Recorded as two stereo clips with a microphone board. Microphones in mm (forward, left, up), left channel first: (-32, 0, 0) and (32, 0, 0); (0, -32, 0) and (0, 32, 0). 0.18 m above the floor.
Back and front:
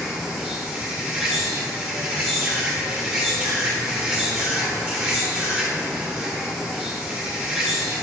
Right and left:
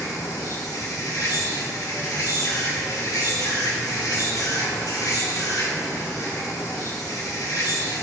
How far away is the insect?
About 3 m.